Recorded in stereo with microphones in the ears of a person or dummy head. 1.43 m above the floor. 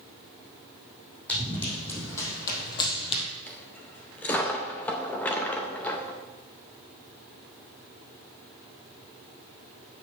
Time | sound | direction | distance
1.3 | running footsteps | 5° left (ahead or behind) | 4.5 m
3.5 | a dropped coin | 5° left (ahead or behind) | 0.8 m